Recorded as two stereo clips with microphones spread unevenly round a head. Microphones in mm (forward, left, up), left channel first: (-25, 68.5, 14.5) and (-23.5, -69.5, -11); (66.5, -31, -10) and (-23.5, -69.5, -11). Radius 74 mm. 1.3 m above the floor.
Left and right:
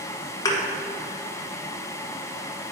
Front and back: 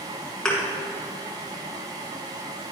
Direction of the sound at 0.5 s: 105° left.